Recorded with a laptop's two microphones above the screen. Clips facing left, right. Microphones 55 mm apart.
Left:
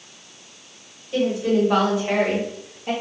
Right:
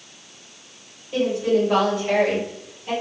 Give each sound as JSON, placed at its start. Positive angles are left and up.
{"t": 1.1, "sound": "a woman speaking", "side_deg": -5, "distance_m": 1.4}